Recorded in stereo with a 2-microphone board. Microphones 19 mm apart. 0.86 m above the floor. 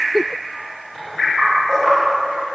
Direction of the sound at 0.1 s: 15° right (ahead or behind).